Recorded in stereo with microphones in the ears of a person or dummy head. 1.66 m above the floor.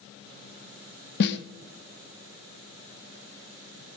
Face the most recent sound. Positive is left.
turn(degrees=60)  # may be behind; listen again after turning